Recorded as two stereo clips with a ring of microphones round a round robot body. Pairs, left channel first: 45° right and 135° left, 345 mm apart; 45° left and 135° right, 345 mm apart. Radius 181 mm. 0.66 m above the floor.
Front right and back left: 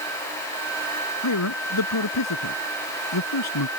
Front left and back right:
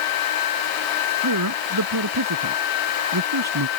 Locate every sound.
1.2 s a man speaking: 90° right